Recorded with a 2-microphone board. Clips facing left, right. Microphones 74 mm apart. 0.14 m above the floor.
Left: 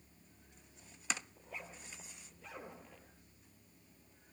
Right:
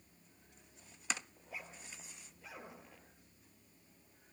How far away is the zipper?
About 3.5 m.